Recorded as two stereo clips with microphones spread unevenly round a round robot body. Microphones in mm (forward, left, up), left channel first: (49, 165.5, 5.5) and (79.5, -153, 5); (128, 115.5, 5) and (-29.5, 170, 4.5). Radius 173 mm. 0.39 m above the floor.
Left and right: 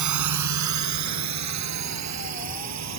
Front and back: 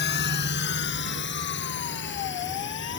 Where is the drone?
55° right; by 3.0 s 45° right.